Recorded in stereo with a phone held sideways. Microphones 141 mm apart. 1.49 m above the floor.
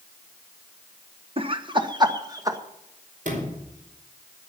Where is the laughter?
40° right (ahead or behind), 1.3 m; by 2.6 s 25° right (ahead or behind), 2 m.